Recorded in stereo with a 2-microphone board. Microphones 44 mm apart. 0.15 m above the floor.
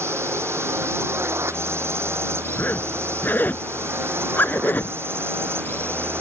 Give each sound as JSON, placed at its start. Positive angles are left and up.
{"t": 0.0, "sound": "a drone", "side_deg": -70}
{"t": 2.6, "sound": "a zipper", "side_deg": 50}